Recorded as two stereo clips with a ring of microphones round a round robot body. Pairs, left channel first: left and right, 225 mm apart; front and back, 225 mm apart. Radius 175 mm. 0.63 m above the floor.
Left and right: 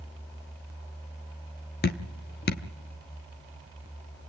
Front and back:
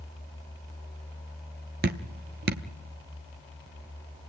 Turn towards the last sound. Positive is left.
turn(degrees=135)